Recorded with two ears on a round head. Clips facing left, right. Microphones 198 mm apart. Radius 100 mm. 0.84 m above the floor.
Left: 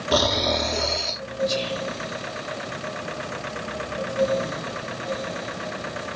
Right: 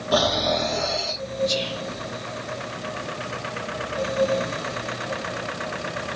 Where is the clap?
I don't hear a clap.